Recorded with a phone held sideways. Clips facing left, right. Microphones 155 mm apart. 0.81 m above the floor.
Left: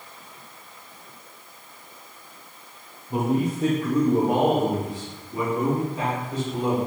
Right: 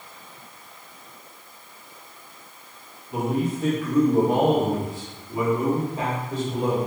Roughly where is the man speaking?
Left.